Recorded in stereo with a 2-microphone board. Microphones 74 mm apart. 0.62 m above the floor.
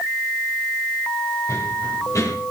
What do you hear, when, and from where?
1.5 s running footsteps: 45° left (ahead or behind), 8.5 m